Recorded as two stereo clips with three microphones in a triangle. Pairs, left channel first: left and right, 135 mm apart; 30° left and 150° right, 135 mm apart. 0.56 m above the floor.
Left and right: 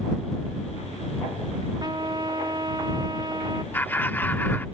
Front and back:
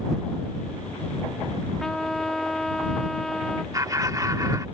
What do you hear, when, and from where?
1.8 s a trumpet: 55° right
3.7 s laughter: 160° left